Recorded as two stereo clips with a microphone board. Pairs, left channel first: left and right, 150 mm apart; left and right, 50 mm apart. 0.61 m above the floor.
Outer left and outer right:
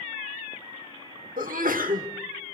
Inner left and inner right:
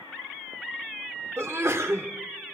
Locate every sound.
1.4 s a sneeze: 65° right (ahead or behind), 1.3 m